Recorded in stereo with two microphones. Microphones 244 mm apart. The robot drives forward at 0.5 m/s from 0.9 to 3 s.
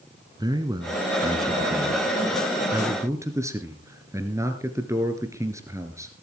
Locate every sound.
0.4 s a man speaking: 15° right (ahead or behind), 1.3 m; by 6.1 s 10° right (ahead or behind), 1.8 m